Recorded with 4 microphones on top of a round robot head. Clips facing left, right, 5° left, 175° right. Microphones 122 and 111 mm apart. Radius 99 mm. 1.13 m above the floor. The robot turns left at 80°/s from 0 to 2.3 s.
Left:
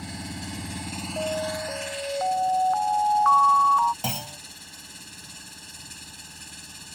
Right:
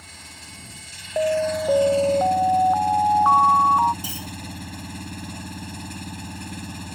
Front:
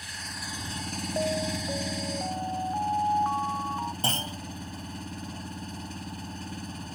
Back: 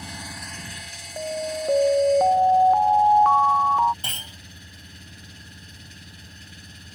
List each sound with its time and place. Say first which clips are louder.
0.0 s an engine running: left 10 dB, back 3 dB; 125° left; by 7.0 s 55° right
1.2 s an alarm: right 8 dB, back 2 dB; 75° right; by 3.9 s 165° right
4.0 s a clunk: left 2 dB, front 8 dB; 65° left